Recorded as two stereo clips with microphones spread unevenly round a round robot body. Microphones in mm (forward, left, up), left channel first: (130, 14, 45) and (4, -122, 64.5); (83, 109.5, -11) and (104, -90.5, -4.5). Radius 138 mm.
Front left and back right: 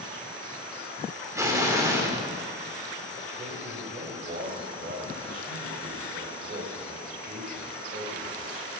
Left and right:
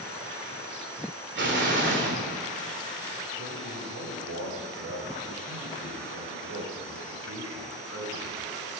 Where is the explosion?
60° right, 3 m.